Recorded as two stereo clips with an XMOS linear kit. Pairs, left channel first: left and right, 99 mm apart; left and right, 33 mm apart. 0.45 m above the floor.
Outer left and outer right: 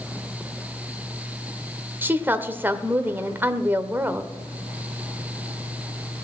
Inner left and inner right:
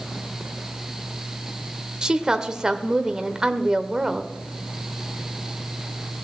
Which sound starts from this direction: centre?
A woman speaking, at 2.0 s.